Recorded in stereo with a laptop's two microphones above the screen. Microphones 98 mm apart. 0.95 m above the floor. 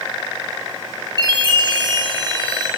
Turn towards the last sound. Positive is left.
turn(degrees=-45)  # may be behind; listen again after turning